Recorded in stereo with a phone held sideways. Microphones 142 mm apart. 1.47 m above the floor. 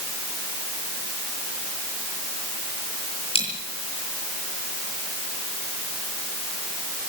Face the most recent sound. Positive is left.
turn(degrees=45)  # may be behind; listen again after turning